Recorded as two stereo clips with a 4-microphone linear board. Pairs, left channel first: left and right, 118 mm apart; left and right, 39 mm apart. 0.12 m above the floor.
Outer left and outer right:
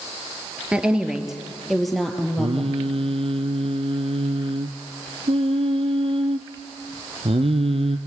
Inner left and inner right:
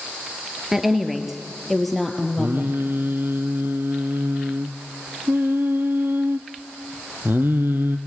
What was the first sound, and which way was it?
A woman speaking, 10° right (ahead or behind).